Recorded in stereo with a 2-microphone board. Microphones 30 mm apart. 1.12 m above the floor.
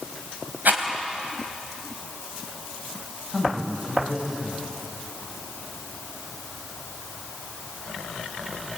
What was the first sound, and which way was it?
A rattle, 75° right (ahead or behind).